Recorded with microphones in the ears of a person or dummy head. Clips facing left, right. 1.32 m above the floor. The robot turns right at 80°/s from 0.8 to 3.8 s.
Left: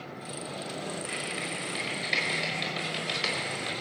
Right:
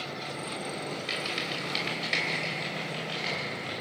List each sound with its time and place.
1.1 s typing on a keyboard: 85° right, 5.5 m; by 3.7 s 55° left (ahead or behind), 5.5 m